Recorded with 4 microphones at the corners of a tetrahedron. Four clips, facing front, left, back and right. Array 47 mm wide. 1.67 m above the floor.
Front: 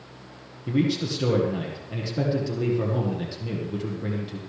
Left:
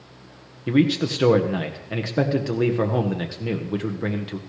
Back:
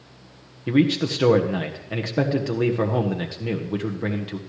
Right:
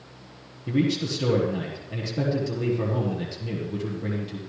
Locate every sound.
0.7 s a man speaking: 130° left, 1.3 m